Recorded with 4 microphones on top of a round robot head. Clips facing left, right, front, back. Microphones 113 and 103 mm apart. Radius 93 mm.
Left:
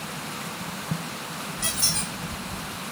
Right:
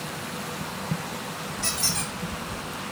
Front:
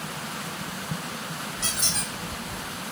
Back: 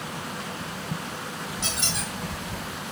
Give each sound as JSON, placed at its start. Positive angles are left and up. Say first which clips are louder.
{"t": 1.6, "sound": "a squeak", "louder": "right 1 dB, back 1 dB", "azimuth_deg": 95, "distance_m": 2.5}